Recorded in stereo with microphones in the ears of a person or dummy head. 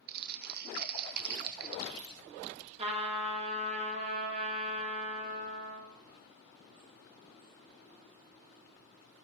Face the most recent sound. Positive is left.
turn(degrees=-40)  # may be behind; listen again after turning